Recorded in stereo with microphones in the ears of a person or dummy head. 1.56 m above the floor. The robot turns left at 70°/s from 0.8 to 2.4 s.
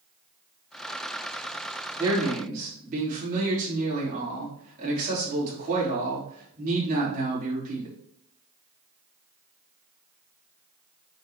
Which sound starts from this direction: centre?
A man speaking, at 2.0 s.